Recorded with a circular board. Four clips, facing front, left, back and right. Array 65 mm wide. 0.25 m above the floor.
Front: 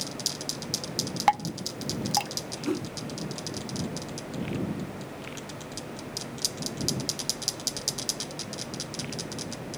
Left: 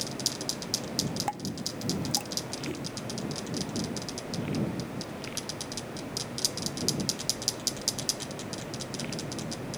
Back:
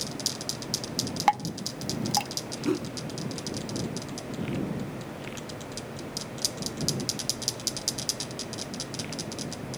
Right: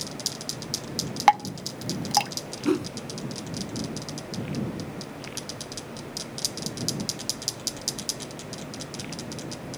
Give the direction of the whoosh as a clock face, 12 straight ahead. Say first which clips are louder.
Right 14 dB, back 2 dB; 3 o'clock.